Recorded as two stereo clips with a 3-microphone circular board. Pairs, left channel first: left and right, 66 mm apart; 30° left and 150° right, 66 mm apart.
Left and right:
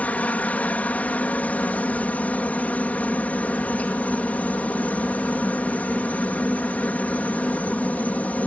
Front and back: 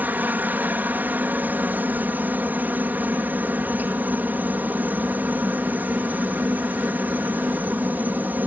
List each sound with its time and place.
0.0 s a helicopter: 155° left